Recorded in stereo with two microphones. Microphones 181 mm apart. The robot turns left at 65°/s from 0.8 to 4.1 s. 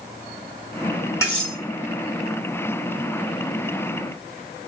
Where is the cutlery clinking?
15° left (ahead or behind), 1.7 m; by 1.6 s 5° right (ahead or behind), 1.7 m.